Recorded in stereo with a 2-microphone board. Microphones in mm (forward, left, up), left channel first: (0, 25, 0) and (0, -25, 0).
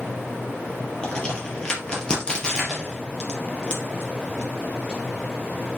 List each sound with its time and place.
1.0 s a crack: 20° left (ahead or behind), 3.5 m